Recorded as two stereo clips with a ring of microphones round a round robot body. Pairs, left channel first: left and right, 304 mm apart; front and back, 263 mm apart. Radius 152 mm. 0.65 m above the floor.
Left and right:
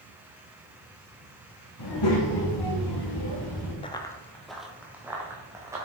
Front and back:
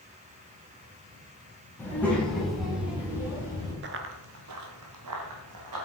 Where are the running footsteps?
155° left, 0.8 m; by 5.9 s 170° right, 2.5 m.